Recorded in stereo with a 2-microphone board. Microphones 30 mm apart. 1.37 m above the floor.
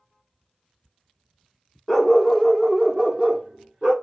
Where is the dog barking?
10° left (ahead or behind), 0.9 m; by 3.9 s 30° right (ahead or behind), 1.5 m.